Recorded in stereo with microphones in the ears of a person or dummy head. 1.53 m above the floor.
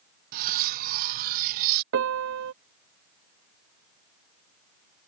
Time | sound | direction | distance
0.3 | cutlery clinking | 50° right (ahead or behind) | ?
1.9 | a piano | 75° right (ahead or behind) | ?